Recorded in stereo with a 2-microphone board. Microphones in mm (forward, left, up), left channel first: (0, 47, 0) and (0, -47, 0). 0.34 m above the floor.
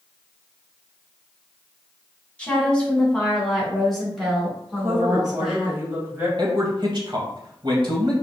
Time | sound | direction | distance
2.4 | a woman speaking | 15° left (ahead or behind) | 2.5 m
4.8 | a woman speaking | 25° right (ahead or behind) | 2.5 m
6.4 | a man speaking | 55° right (ahead or behind) | 1.8 m